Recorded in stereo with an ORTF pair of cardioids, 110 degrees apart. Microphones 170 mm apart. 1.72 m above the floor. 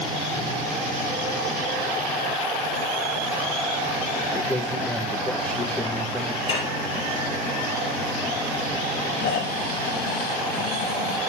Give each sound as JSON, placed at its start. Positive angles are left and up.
{"t": 4.3, "sound": "a man speaking", "azimuth_deg": 10, "distance_m": 2.0}
{"t": 6.5, "sound": "dishes clattering", "azimuth_deg": 30, "distance_m": 5.0}
{"t": 9.2, "sound": "snoring", "azimuth_deg": 65, "distance_m": 3.0}